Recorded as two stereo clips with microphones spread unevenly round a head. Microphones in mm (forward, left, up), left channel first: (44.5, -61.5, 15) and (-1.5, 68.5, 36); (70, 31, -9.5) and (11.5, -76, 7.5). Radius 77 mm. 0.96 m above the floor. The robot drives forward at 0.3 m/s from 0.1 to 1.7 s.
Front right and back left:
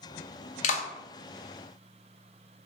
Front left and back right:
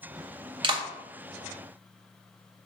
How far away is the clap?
About 0.8 m.